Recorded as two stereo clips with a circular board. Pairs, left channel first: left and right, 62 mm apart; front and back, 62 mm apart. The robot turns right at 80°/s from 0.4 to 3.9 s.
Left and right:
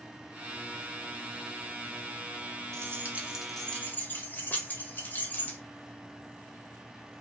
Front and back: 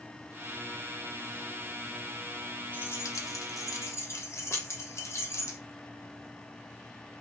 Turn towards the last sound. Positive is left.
turn(degrees=35)